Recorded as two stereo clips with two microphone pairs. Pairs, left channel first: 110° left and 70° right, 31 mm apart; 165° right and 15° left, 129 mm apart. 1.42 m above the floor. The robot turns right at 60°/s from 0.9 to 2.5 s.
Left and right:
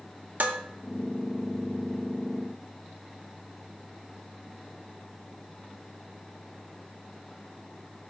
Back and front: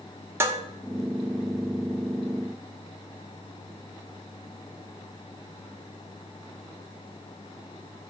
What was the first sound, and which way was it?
Dishes clattering, 50° right.